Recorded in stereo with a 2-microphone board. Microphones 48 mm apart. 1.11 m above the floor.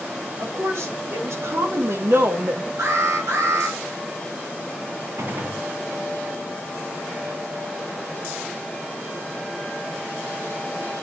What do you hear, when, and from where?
0.4 s a woman speaking: 75° right (ahead or behind), 4 m; by 2.7 s 45° right (ahead or behind), 0.9 m
2.8 s an alarm: 75° right (ahead or behind), 4.5 m
5.2 s a gunshot: 55° right (ahead or behind), 1.8 m